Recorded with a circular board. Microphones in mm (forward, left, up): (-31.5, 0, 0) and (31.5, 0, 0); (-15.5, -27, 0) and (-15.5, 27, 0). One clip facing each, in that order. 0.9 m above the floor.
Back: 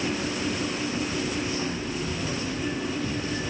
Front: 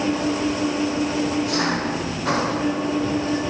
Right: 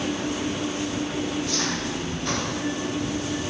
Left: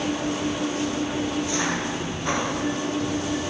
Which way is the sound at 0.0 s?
15° left.